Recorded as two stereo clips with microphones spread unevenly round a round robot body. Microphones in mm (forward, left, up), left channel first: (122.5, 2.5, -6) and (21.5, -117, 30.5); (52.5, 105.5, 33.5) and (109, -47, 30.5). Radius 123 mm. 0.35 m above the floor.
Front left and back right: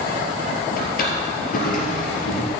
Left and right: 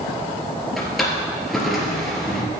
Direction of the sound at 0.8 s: 20° left.